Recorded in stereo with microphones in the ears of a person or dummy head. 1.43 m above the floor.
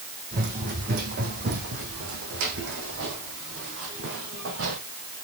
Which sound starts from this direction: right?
Running footsteps, at 0.3 s.